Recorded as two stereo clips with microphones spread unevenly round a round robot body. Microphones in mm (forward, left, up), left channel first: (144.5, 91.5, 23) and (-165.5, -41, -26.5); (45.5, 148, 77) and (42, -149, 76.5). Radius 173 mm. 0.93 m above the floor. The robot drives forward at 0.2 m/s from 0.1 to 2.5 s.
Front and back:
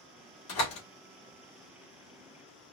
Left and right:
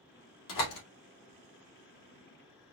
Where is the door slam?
70° left, 1.9 m; by 0.8 s 75° left, 1.9 m.